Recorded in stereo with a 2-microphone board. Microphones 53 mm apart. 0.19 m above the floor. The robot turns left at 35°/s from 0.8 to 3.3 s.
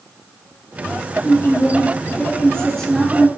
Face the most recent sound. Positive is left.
turn(degrees=5)